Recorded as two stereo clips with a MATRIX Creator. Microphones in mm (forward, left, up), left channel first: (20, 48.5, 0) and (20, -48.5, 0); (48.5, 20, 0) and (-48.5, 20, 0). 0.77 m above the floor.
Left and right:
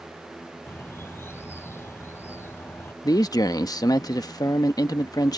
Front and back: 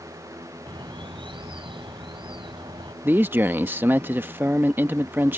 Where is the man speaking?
115° left.